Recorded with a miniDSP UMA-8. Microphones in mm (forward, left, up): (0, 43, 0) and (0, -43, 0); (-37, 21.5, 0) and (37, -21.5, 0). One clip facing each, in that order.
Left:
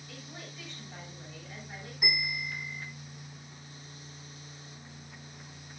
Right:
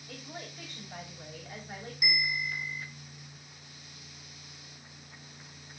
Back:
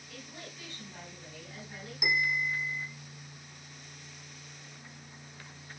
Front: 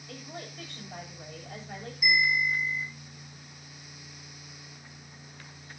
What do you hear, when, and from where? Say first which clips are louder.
0.1 s a woman speaking: right 4 dB, front 5 dB; 40° right, 7.5 m
2.0 s a bell: right 2 dB, front 4 dB; 140° left, 5 m